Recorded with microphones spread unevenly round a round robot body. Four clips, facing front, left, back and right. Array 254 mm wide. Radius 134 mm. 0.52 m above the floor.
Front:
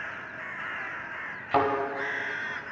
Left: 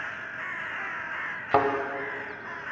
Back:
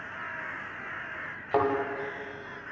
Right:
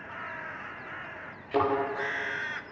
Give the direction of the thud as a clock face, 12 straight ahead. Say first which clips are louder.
Left 3 dB, front 1 dB; 10 o'clock.